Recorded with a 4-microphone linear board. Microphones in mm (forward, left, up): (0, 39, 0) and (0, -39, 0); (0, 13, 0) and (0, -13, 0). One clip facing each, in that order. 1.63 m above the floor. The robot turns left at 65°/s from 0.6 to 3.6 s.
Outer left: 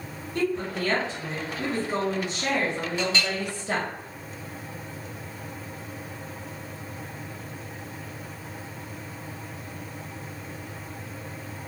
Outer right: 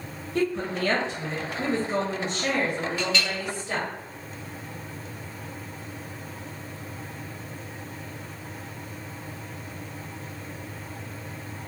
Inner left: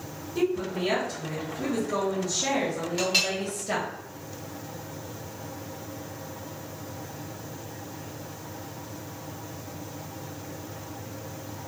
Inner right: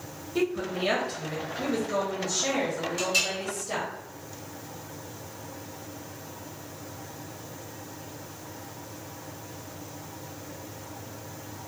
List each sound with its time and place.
0.3 s a woman speaking: 75° right, 1.0 m; by 3.9 s 90° left, 1.0 m
3.0 s a clink: 20° left (ahead or behind), 1.2 m; by 3.3 s 35° left (ahead or behind), 1.2 m